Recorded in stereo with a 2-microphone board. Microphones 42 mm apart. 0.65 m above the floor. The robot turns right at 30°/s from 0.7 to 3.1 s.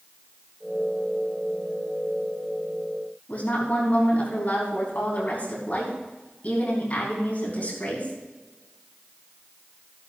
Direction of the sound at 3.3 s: 45° left (ahead or behind).